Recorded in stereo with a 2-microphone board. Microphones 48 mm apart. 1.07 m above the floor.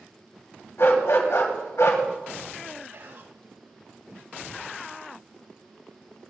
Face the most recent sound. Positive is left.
turn(degrees=-50)  # may be behind; listen again after turning